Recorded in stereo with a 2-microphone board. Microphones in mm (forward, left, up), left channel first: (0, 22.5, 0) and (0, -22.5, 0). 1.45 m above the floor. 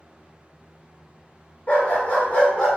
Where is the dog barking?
40° left (ahead or behind), 1.4 m; by 2.7 s 20° left (ahead or behind), 1.2 m.